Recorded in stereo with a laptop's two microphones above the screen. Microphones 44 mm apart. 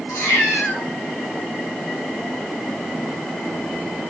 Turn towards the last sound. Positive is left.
turn(degrees=80)